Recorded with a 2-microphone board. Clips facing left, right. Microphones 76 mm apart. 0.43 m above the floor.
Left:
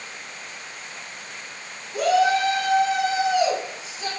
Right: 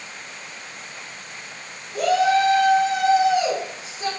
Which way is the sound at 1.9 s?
25° left (ahead or behind).